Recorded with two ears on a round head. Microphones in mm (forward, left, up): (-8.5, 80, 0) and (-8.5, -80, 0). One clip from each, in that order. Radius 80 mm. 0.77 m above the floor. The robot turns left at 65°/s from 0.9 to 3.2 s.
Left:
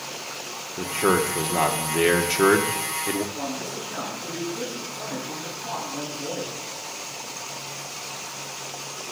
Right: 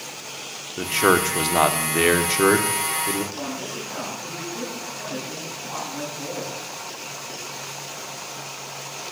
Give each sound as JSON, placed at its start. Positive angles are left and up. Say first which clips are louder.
{"t": 0.8, "sound": "a man speaking", "louder": "right 3 dB", "azimuth_deg": -80, "distance_m": 1.4}
{"t": 3.3, "sound": "a man speaking", "louder": "even", "side_deg": 10, "distance_m": 7.5}